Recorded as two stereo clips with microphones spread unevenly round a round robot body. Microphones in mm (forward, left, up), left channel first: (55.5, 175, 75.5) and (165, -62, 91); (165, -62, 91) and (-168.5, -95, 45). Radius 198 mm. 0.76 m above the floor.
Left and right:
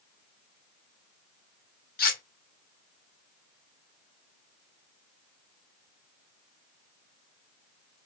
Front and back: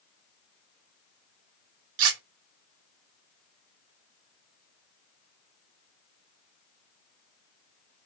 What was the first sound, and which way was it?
Cutlery clinking, 175° left.